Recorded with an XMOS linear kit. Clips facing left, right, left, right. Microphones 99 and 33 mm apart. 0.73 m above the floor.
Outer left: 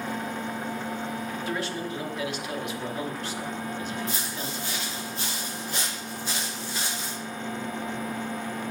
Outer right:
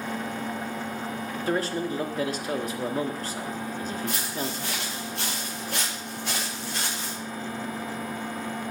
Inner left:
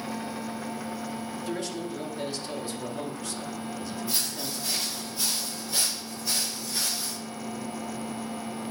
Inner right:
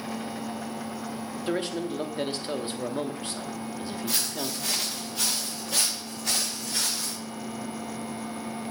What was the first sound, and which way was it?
A man speaking, 40° right (ahead or behind).